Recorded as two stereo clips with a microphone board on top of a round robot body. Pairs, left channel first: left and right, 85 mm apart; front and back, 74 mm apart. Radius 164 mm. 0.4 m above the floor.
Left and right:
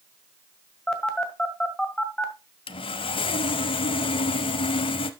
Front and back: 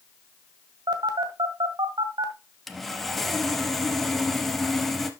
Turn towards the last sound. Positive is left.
turn(degrees=85)